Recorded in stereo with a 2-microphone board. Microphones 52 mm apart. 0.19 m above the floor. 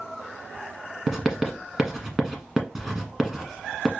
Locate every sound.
1.1 s writing: 10° right (ahead or behind), 1.2 m